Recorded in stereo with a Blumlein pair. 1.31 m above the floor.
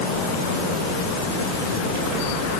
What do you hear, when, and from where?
Only background noise.